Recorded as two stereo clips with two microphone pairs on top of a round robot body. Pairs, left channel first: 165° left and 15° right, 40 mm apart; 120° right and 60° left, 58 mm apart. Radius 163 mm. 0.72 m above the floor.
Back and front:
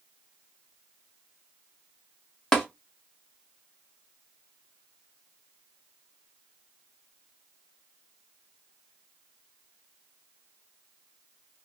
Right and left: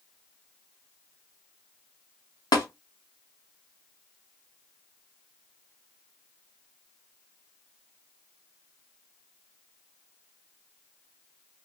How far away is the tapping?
About 0.5 m.